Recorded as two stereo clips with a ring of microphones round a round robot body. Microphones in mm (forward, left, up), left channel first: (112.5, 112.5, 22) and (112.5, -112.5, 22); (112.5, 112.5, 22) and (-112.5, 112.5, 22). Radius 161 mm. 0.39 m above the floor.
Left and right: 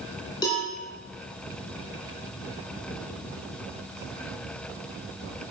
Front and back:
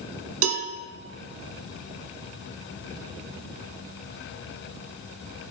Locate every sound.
0.4 s a cowbell: 170° left, 2 m